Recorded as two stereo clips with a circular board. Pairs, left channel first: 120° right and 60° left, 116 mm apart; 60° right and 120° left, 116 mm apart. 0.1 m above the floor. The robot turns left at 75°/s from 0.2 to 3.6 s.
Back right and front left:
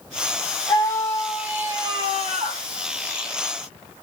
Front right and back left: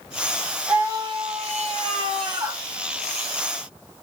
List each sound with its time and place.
0.7 s a scream: 165° right, 4 m; by 2.6 s 50° left, 4 m